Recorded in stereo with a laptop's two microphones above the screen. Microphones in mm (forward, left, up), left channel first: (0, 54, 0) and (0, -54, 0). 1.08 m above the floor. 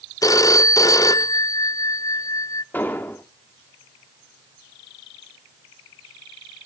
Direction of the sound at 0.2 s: 30° left (ahead or behind).